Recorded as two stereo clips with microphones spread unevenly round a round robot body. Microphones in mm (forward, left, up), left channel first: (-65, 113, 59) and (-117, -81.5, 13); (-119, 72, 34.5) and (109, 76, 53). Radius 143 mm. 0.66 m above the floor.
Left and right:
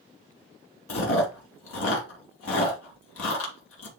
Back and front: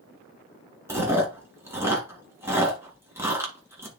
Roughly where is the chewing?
Left.